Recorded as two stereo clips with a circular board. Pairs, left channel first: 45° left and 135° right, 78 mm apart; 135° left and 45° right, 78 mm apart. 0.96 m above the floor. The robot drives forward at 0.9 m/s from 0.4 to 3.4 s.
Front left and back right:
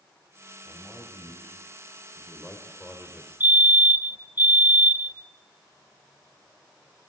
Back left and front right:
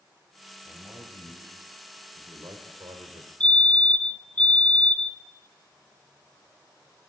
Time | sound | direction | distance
0.7 | a man speaking | 20° right | 5 m
3.4 | a fire alarm | 165° right | 1.3 m